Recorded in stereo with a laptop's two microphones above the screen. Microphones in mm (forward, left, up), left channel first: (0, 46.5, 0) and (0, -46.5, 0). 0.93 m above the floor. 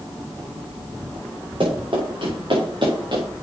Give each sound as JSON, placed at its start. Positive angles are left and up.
{"t": 1.6, "sound": "running footsteps", "side_deg": -65, "distance_m": 5.5}